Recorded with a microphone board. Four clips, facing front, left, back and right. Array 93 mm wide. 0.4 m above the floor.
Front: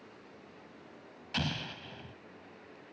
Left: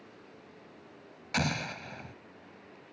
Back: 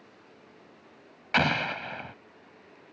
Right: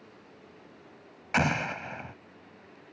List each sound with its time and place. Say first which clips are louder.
1.3 s an explosion: right 5 dB, back 12 dB; 150° right